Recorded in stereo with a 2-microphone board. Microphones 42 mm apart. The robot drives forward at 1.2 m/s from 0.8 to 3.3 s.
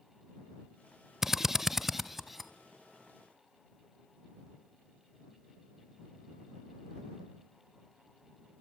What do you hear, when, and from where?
1.2 s a drill: 10° right (ahead or behind), 0.5 m; by 2.5 s 5° right (ahead or behind), 1.4 m